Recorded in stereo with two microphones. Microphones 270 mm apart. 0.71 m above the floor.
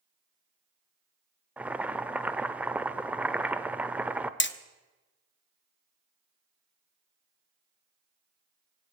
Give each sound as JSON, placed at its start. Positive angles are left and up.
{"t": 1.6, "sound": "boiling", "side_deg": -5, "distance_m": 0.6}
{"t": 4.4, "sound": "hammering", "side_deg": 45, "distance_m": 0.6}